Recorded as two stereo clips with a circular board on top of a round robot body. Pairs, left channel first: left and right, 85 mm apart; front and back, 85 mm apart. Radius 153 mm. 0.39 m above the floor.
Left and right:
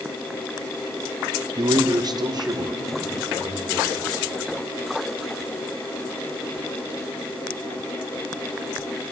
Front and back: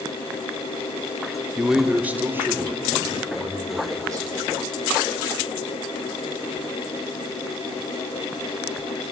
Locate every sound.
1.6 s a man speaking: 95° right, 0.9 m; by 4.3 s 130° right, 2.5 m